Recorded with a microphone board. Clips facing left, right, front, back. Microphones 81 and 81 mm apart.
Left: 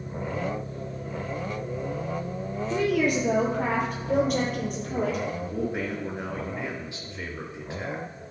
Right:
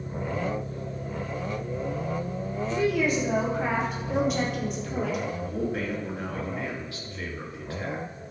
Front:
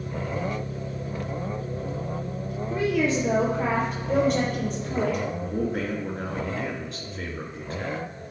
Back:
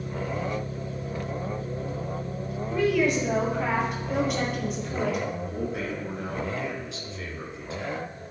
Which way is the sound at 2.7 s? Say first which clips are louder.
Left 1 dB, back 1 dB; 65° left.